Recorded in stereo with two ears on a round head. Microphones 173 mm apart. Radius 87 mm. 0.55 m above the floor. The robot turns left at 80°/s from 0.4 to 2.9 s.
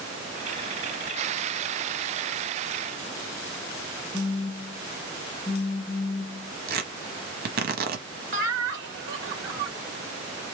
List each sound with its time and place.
4.1 s a phone buzzing: 15° left (ahead or behind), 1.0 m
6.7 s tearing paper: 50° right (ahead or behind), 1.2 m
8.3 s laughter: 65° right (ahead or behind), 2.5 m